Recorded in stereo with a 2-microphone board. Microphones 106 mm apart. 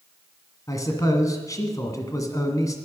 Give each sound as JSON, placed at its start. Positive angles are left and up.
{"t": 0.7, "sound": "a man speaking", "side_deg": 35, "distance_m": 1.5}